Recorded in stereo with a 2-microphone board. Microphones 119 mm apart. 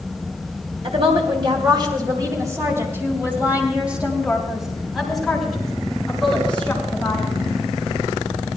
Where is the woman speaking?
55° right (ahead or behind), 2.5 m; by 7.3 s 10° left (ahead or behind), 6.5 m.